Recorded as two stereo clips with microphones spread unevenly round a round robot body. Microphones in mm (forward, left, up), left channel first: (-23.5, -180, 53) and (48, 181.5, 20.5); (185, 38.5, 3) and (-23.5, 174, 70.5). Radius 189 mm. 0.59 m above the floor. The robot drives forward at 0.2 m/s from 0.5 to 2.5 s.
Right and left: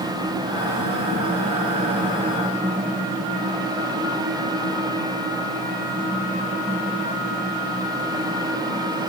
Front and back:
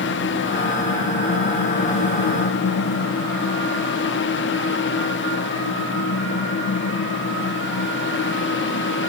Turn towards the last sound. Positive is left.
No sound to turn to.